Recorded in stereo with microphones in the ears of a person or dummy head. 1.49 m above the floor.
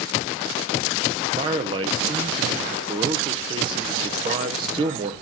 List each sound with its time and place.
1.4 s a man speaking: 30° right (ahead or behind), 0.6 m